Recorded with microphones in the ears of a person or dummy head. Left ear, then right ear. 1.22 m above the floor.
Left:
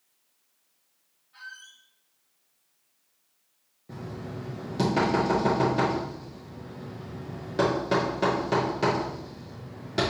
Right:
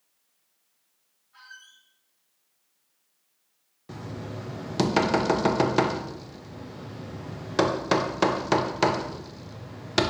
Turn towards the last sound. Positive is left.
turn(degrees=-40)  # may be behind; listen again after turning